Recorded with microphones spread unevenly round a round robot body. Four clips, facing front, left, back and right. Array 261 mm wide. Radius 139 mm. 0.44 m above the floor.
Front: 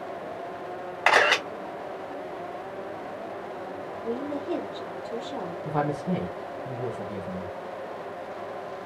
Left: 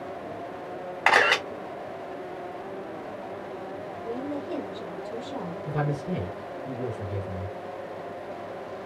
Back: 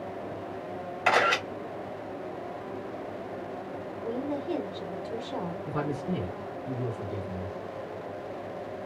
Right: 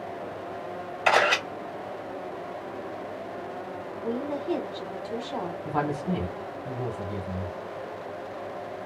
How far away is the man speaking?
About 1.8 m.